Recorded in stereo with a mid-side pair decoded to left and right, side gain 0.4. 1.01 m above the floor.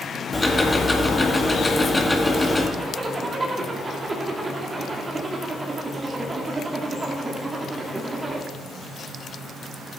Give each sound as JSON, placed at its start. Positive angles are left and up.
{"t": 0.3, "sound": "ticking", "azimuth_deg": 15, "distance_m": 2.0}
{"t": 2.8, "sound": "a zipper", "azimuth_deg": -30, "distance_m": 2.5}